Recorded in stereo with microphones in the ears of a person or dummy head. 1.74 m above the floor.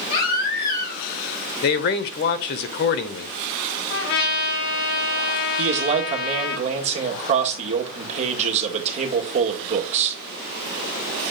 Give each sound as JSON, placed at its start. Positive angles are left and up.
{"t": 0.1, "sound": "a baby crying", "side_deg": 60, "distance_m": 5.5}
{"t": 1.6, "sound": "a man speaking", "side_deg": 55, "distance_m": 0.8}
{"t": 3.9, "sound": "a trumpet", "side_deg": 65, "distance_m": 3.5}
{"t": 5.6, "sound": "a man speaking", "side_deg": -40, "distance_m": 1.9}